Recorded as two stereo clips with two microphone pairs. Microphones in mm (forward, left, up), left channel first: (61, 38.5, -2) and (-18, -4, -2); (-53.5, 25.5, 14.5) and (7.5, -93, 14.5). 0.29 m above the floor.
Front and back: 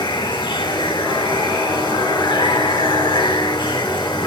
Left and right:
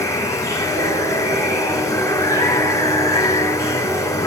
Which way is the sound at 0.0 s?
55° left.